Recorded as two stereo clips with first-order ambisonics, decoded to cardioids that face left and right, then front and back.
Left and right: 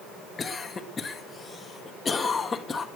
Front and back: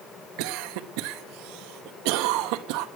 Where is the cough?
165° left, 1.1 m.